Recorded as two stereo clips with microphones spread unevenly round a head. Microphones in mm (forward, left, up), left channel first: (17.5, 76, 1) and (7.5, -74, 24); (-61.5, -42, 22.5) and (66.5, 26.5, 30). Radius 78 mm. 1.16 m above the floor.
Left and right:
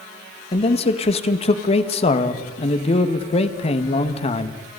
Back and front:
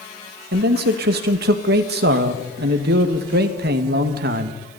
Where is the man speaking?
40° left, 1.7 m.